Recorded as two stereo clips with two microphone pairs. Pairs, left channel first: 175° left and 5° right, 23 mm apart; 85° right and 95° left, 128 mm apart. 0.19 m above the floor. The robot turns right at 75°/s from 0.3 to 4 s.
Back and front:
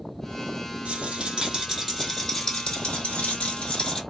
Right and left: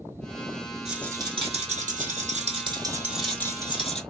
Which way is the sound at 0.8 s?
10° left.